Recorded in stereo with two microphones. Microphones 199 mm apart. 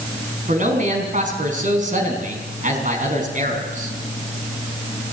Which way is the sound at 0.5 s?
40° right (ahead or behind).